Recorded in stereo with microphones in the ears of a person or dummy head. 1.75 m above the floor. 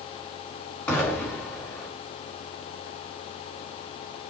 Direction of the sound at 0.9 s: 15° left (ahead or behind).